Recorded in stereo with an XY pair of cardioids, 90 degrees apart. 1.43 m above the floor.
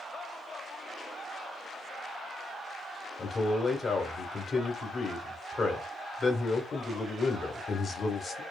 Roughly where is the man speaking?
Ahead left.